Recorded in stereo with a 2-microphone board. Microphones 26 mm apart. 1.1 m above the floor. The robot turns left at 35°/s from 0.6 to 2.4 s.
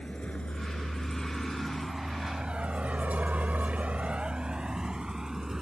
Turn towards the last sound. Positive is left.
turn(degrees=-20)  # may be behind; listen again after turning